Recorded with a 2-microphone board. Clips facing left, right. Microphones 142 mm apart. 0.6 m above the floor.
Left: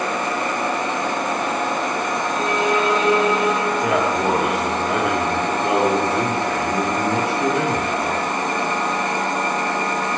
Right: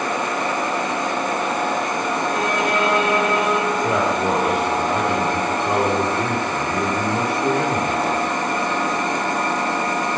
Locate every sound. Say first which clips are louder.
2.3 s a violin: left 3 dB; 60° right (ahead or behind), 2 m
3.7 s a man speaking: even; 80° left, 6.5 m